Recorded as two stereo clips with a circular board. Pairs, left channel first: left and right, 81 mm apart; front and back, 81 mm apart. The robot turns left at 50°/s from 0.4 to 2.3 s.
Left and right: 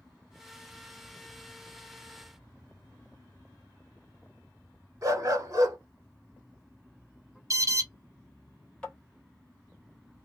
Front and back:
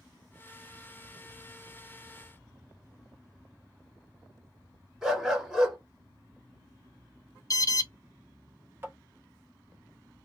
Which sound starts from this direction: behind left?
Tapping, at 8.8 s.